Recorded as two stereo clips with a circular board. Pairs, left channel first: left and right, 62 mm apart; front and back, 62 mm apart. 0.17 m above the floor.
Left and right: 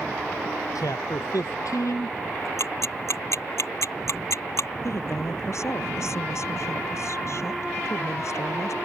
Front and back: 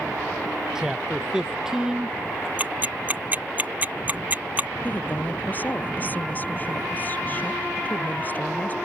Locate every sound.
0.8 s a man speaking: 100° left
2.6 s ticking: 120° left
4.8 s a woman speaking: 60° left